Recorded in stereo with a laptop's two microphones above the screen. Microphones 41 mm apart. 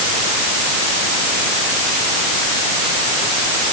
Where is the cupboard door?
No cupboard door in this recording.